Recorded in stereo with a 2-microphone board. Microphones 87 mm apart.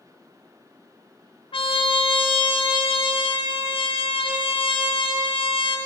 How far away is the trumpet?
About 0.5 m.